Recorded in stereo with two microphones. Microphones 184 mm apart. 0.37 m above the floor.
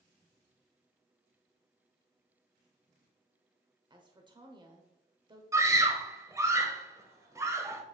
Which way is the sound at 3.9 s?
25° right (ahead or behind).